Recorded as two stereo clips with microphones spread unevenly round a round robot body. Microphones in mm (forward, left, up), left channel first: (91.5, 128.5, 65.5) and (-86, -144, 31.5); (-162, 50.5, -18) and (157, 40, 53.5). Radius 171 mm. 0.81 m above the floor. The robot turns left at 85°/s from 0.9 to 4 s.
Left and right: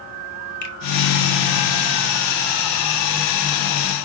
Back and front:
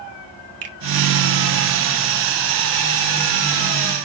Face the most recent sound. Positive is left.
turn(degrees=115)